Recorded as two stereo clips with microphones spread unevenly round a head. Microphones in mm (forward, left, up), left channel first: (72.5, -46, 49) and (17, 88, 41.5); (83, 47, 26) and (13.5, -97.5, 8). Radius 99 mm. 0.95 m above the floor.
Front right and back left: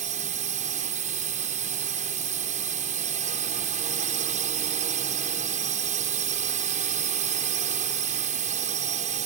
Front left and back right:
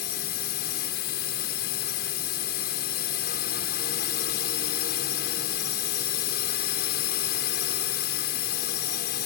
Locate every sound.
0.0 s a drone: 90° left